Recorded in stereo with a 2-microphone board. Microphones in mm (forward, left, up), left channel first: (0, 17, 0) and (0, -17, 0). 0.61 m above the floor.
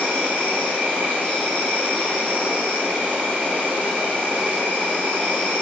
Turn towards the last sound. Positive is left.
turn(degrees=-80)